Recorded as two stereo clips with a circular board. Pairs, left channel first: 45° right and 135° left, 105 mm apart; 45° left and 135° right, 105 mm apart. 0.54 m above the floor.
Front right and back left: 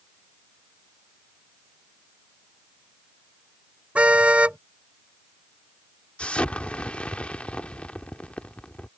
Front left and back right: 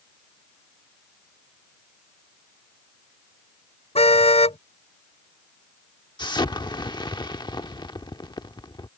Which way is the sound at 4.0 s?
55° left.